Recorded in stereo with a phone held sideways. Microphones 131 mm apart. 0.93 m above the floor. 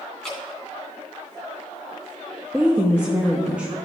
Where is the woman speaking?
10° right (ahead or behind), 0.7 m.